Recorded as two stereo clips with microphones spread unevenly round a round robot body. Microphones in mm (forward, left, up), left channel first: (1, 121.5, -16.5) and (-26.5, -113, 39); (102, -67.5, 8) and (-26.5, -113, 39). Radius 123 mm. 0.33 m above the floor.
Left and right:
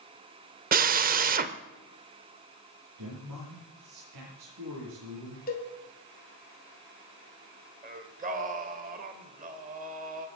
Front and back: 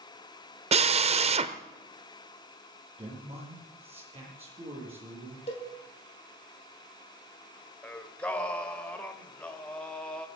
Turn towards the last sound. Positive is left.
turn(degrees=-40)